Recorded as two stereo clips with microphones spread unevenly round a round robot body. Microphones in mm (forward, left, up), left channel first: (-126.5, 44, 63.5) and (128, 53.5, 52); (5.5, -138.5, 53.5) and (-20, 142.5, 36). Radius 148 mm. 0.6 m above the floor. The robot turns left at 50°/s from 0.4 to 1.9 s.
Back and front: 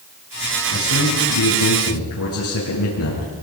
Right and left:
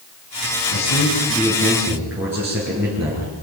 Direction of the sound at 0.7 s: 125° right.